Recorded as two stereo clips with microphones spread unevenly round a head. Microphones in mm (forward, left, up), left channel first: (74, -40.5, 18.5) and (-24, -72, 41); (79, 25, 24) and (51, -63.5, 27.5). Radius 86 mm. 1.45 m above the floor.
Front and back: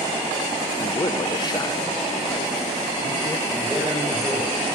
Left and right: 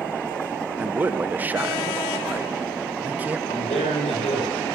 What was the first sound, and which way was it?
A man speaking, 35° right.